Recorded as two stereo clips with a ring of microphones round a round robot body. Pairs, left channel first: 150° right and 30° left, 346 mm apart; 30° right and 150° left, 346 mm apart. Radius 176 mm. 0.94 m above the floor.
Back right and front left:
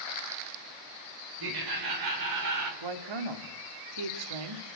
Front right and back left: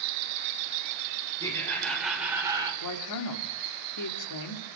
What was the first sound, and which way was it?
Laughter, 50° left.